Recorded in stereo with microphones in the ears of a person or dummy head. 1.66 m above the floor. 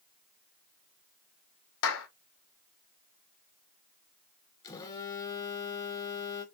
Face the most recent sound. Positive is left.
turn(degrees=20)  # may be behind; listen again after turning